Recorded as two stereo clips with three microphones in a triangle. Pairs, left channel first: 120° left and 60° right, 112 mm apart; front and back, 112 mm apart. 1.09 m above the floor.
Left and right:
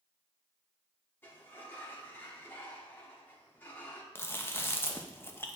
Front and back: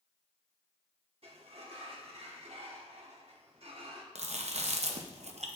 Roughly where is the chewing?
Behind.